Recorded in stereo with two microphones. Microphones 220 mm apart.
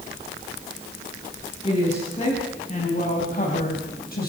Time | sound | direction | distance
1.6 | a woman speaking | 30° left (ahead or behind) | 7.5 m